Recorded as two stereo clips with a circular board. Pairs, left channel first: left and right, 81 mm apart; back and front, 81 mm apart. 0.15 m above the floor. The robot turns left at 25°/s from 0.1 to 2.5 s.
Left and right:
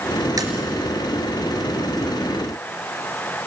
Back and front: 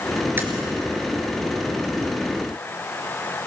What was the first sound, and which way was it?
Tapping, 60° right.